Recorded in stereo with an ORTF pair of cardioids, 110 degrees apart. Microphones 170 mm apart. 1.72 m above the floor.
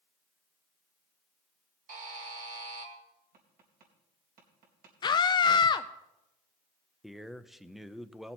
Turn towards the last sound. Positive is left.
turn(degrees=0)